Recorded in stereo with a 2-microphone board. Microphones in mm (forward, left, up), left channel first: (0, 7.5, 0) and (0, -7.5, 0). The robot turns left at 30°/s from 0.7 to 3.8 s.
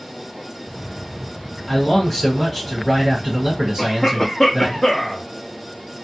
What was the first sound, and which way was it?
A man speaking, 25° left.